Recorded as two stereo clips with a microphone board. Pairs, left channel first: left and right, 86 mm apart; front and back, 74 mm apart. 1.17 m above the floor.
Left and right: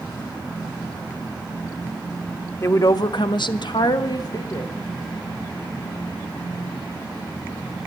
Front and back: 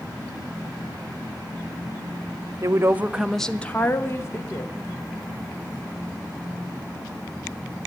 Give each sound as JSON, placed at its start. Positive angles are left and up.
{"t": 2.6, "sound": "a woman speaking", "azimuth_deg": 140, "distance_m": 0.7}